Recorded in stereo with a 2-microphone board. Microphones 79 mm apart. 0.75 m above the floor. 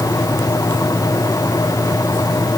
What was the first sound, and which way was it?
Only background noise.